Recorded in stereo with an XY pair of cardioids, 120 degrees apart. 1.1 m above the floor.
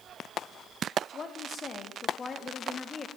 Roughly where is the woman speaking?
Ahead left.